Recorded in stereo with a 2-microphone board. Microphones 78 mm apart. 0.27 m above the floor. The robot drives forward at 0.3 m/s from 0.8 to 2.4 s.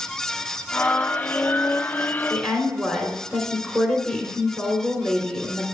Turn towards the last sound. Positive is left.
turn(degrees=5)  # may be behind; listen again after turning